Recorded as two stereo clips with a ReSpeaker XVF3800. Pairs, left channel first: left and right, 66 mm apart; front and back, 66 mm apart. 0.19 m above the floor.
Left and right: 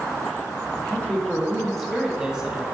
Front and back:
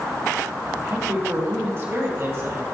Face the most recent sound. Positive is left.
turn(degrees=-160)